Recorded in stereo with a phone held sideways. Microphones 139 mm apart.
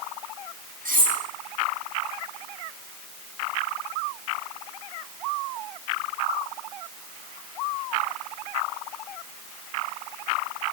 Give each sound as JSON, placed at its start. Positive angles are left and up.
{"t": 0.8, "sound": "cutlery clinking", "side_deg": -75, "distance_m": 8.5}